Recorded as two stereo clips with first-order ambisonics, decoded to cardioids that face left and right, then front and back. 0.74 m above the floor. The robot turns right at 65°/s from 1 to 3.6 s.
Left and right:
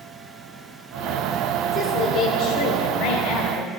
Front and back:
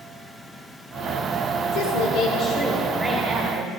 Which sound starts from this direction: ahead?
A woman speaking, at 1.7 s.